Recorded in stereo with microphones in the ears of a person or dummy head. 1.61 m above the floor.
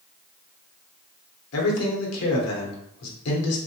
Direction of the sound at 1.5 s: 80° left.